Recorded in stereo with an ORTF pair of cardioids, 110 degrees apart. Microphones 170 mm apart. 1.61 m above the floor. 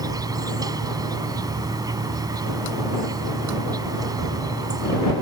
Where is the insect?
20° right.